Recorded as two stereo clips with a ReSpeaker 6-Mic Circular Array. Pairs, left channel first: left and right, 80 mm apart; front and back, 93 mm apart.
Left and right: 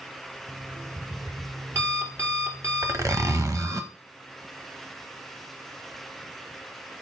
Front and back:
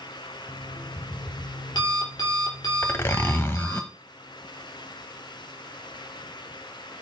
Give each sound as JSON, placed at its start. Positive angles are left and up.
{"t": 0.5, "sound": "an alarm clock", "azimuth_deg": -40, "distance_m": 2.5}
{"t": 2.8, "sound": "a zipper", "azimuth_deg": -55, "distance_m": 1.1}